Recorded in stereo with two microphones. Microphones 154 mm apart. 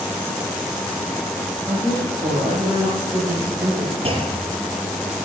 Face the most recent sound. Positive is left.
turn(degrees=-40)  # may be behind; listen again after turning